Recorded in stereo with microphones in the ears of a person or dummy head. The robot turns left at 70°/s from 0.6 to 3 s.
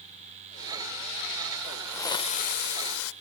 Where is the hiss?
170° right, 0.7 m; by 3.1 s 95° left, 0.7 m.